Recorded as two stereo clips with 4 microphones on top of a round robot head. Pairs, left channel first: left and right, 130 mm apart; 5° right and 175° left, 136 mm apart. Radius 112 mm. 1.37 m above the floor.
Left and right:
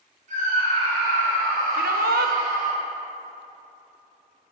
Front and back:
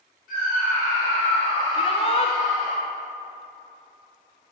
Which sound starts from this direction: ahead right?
A scream, at 0.3 s.